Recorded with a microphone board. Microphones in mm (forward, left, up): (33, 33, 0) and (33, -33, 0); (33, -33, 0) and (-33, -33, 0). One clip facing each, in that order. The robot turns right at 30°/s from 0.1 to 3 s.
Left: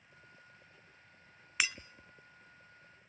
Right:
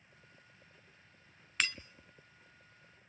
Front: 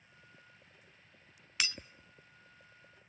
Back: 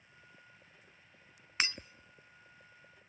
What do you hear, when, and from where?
1.6 s breaking glass: 165° left, 0.7 m; by 1.8 s 170° left, 0.7 m